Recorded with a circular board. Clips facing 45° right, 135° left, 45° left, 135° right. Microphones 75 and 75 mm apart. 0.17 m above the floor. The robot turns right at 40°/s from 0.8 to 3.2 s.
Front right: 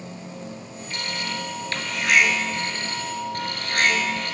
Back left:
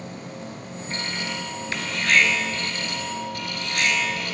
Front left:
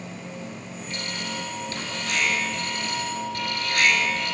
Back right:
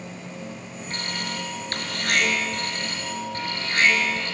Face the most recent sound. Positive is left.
turn(degrees=-80)